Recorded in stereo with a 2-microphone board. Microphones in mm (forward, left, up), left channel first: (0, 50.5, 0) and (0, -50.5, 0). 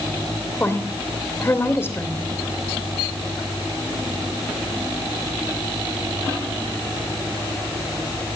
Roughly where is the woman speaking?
Left.